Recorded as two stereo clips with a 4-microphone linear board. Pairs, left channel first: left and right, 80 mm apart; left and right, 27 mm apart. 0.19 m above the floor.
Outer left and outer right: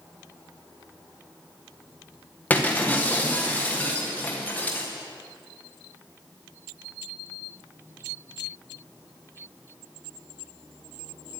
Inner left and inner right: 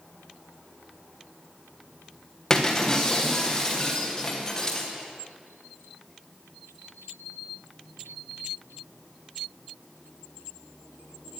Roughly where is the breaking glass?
Centre.